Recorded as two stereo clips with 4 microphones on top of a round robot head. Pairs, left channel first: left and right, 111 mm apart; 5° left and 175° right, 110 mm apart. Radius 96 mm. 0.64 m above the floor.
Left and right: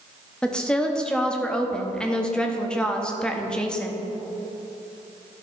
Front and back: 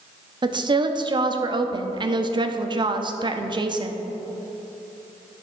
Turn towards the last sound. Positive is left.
turn(degrees=170)